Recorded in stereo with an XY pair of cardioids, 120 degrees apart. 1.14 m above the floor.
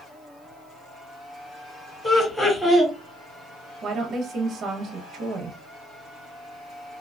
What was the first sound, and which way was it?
Laughter, 10° left.